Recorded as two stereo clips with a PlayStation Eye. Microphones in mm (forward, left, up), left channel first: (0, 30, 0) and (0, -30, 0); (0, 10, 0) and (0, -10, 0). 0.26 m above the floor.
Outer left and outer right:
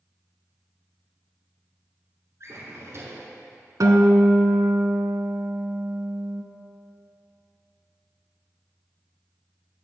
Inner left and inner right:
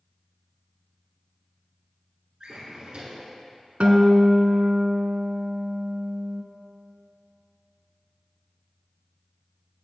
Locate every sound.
2.4 s a drawer: 55° right (ahead or behind), 1.1 m
3.8 s a guitar: 80° right, 0.6 m